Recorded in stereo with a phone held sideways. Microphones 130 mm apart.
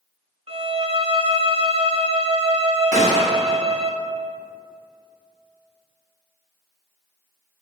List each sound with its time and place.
0.5 s a violin: 45° right (ahead or behind), 0.6 m
2.9 s a gunshot: 70° left (ahead or behind), 1.5 m